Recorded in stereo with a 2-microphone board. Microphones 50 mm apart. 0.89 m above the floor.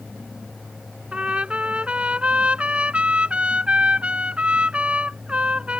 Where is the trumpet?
25° right (ahead or behind).